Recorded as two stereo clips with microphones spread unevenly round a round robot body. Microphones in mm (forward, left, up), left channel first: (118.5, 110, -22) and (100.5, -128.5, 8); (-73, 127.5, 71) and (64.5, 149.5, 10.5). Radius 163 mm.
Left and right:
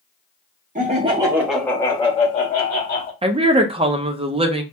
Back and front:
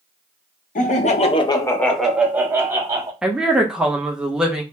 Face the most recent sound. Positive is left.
turn(degrees=-35)